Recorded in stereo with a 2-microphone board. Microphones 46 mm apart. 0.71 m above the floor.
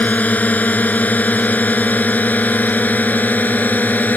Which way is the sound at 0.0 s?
35° left (ahead or behind).